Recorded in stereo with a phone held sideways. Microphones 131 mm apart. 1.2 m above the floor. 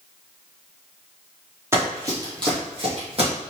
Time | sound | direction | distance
1.7 | running footsteps | 20° right (ahead or behind) | 1.8 m